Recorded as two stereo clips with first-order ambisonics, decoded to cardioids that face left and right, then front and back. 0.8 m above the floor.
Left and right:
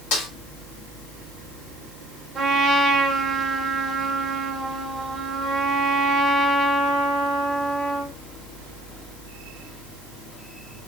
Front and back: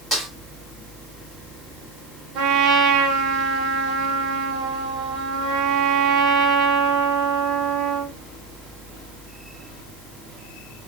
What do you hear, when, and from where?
0.1 s a snare drum: 100° left, 2.0 m
2.4 s a trumpet: 160° right, 0.9 m